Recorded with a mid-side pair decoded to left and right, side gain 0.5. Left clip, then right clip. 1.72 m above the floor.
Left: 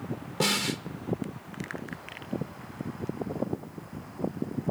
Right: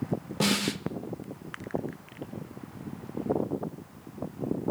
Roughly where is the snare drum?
Ahead.